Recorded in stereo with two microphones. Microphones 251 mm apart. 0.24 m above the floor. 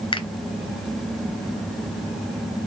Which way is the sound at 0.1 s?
20° left (ahead or behind).